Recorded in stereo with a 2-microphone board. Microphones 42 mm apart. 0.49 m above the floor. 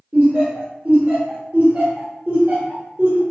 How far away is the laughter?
About 1.0 m.